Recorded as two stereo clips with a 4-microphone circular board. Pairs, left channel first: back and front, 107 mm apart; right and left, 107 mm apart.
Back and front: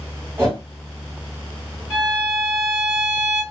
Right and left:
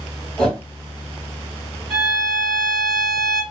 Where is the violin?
110° left, 1.9 m.